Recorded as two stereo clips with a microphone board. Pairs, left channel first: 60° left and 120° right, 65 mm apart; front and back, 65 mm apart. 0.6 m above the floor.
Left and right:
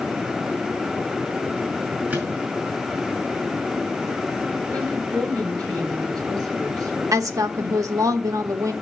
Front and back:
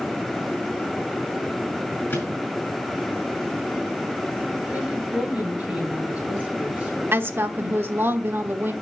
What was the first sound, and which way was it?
A microwave, 60° right.